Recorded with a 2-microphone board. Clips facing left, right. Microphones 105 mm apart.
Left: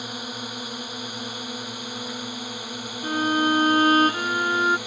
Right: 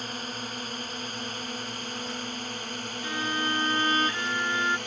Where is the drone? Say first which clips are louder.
Left 2 dB; 10° left (ahead or behind); by 4.9 s 5° left (ahead or behind).